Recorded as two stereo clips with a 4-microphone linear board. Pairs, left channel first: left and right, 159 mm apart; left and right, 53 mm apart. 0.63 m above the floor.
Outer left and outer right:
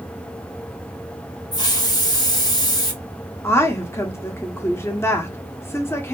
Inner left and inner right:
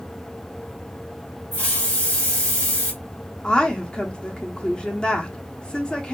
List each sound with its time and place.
1.5 s a hiss: 25° left (ahead or behind), 1.0 m
3.4 s a woman speaking: 15° left (ahead or behind), 0.8 m